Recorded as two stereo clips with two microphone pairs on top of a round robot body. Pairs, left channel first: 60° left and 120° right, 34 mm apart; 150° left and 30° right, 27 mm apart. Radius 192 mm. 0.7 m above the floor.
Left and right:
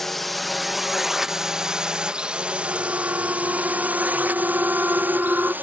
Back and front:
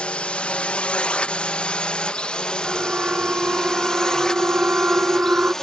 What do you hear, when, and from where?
0.0 s a drone: 130° left; by 5.6 s 130° right
2.6 s a siren: 70° right; by 5.5 s 60° right